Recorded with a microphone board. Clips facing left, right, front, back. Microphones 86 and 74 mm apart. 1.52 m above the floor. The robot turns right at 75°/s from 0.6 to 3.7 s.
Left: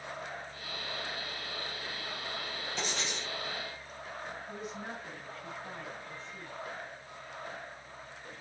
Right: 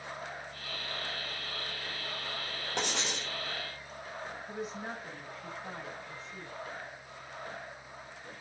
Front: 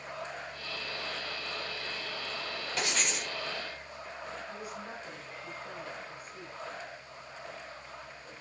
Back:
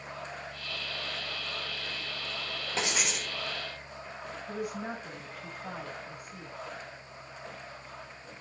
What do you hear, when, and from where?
2.8 s writing: 120° right, 3 m; by 3.3 s 75° right, 3 m
4.5 s a woman speaking: 160° right, 2.5 m